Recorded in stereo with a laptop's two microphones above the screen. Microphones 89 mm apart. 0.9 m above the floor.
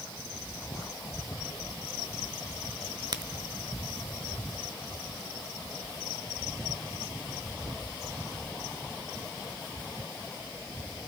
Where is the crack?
50° right (ahead or behind), 0.8 m.